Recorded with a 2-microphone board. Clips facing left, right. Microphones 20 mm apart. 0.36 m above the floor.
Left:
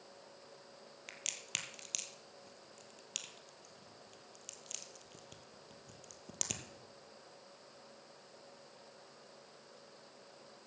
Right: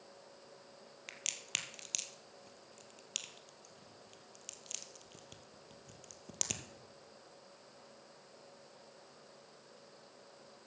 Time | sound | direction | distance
1.1 | a crack | 10° right (ahead or behind) | 1.4 m